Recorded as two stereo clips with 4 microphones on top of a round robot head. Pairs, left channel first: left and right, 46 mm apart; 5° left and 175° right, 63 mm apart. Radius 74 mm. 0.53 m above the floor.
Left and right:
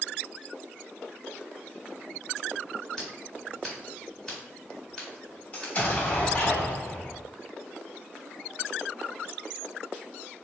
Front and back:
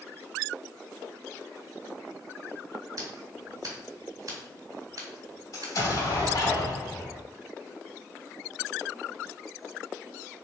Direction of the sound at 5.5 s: 40° left.